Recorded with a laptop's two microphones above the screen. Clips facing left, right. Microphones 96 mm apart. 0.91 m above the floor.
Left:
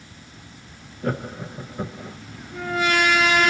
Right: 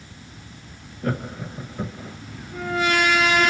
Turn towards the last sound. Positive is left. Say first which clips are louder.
# even
turn(degrees=10)  # may be behind; listen again after turning